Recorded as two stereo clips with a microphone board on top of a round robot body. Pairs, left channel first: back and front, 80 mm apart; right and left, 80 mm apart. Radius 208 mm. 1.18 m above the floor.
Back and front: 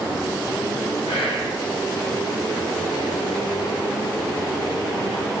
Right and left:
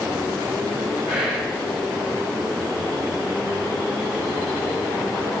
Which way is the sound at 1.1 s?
170° left.